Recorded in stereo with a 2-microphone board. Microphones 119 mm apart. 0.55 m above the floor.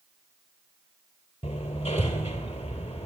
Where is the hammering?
60° left (ahead or behind), 2.5 m.